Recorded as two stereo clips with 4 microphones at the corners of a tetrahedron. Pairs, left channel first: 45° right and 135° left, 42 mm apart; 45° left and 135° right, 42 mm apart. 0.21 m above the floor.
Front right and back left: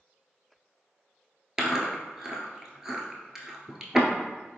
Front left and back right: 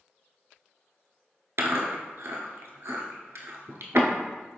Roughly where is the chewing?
Behind right.